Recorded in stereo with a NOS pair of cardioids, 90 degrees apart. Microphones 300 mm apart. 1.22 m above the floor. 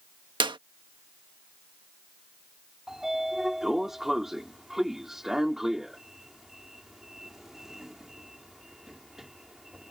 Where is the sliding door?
Straight ahead.